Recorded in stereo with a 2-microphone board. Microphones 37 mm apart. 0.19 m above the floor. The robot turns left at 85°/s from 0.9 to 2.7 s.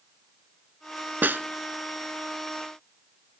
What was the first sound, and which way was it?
A snare drum, 65° right (ahead or behind).